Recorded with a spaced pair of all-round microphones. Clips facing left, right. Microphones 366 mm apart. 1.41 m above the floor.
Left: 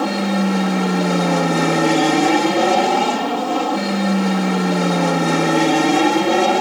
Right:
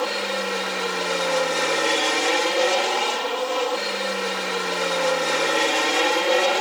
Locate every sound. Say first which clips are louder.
0.0 s an aircraft: left 8 dB; 65° left (ahead or behind); by 6.6 s 60° left (ahead or behind)